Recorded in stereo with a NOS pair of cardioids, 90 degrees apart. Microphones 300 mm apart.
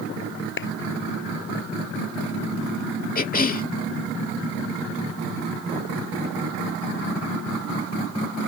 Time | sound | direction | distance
0.6 | a clap | 40° left | ?
3.1 | a cough | 25° left | ?